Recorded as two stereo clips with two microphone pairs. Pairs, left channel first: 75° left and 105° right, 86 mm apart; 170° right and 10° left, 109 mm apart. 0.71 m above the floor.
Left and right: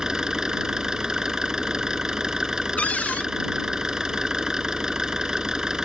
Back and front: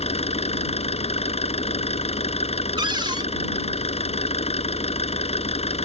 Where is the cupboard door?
15° left.